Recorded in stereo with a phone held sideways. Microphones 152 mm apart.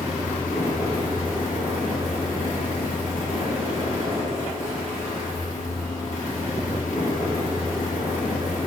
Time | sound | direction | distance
0.0 | a fan | 65° left (ahead or behind) | 4.5 m